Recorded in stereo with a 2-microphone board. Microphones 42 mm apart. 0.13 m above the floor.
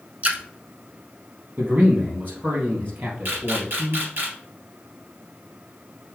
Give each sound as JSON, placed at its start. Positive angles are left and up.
{"t": 0.2, "sound": "a splash", "side_deg": -35, "distance_m": 0.8}
{"t": 1.6, "sound": "a man speaking", "side_deg": -55, "distance_m": 2.5}
{"t": 3.2, "sound": "a camera shutter", "side_deg": -60, "distance_m": 2.0}